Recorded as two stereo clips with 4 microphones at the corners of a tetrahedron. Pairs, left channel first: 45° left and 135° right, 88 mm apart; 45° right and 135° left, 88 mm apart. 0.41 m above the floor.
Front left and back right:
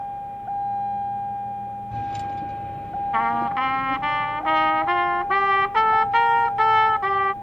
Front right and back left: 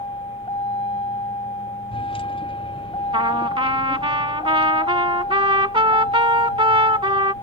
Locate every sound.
0.0 s a vehicle: 45° right; by 7.4 s 20° right
3.1 s a trumpet: 140° left